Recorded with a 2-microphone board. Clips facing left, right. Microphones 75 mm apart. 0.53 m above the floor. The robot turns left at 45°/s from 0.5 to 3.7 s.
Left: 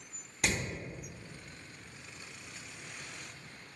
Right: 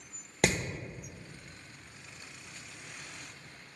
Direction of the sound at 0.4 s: 55° right (ahead or behind).